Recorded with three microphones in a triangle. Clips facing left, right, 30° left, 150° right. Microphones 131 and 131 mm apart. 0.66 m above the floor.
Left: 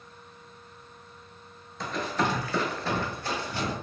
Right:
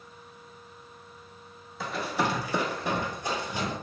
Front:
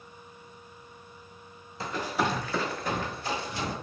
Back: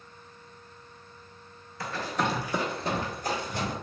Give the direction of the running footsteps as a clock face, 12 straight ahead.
12 o'clock.